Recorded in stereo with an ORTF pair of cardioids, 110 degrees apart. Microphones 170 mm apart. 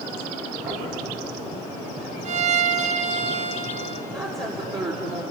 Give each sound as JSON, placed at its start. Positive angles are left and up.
{"t": 0.7, "sound": "knocking", "azimuth_deg": -60, "distance_m": 10.0}
{"t": 2.2, "sound": "a violin", "azimuth_deg": -45, "distance_m": 1.5}
{"t": 4.1, "sound": "a woman speaking", "azimuth_deg": -25, "distance_m": 5.0}